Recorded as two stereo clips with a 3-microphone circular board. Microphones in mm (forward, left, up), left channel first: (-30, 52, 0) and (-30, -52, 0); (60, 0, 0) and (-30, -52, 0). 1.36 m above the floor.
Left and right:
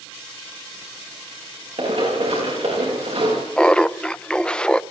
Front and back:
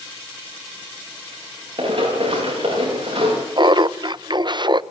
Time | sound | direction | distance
1.8 | running footsteps | 110° right | 8.5 m
3.6 | laughter | 170° left | 0.6 m